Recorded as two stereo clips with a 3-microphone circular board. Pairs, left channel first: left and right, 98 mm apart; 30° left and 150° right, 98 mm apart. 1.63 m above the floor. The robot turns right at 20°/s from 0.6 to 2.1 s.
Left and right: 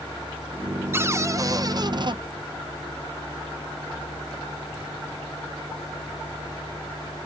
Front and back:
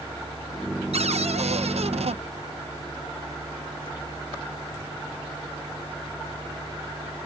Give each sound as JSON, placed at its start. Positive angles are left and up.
{"t": 0.9, "sound": "a cupboard door", "azimuth_deg": -155}